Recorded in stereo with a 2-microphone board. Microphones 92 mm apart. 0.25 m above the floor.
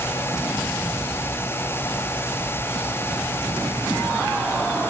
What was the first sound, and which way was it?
Only background noise.